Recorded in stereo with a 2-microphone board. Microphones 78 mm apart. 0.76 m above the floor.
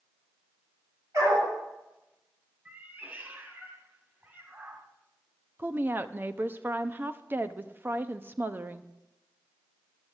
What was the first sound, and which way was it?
A dog barking, 45° right (ahead or behind).